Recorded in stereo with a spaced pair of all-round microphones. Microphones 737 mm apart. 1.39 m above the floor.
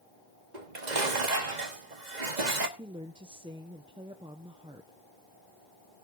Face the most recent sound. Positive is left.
turn(degrees=-5)  # may be behind; listen again after turning